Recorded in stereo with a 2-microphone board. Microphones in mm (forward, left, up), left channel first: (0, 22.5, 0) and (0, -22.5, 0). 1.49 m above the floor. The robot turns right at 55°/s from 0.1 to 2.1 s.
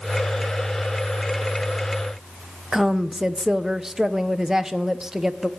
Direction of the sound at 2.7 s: 10° right (ahead or behind).